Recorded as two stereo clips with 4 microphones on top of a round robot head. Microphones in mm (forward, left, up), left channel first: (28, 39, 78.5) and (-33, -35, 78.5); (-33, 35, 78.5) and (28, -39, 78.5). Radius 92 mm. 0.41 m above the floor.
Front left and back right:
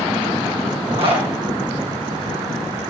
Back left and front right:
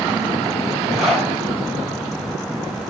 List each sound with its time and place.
0.9 s a zipper: 140° right, 3.5 m